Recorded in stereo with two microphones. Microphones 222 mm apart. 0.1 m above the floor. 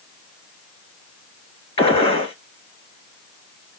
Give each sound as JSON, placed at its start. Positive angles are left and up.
{"t": 1.8, "sound": "a gunshot", "side_deg": 25, "distance_m": 1.7}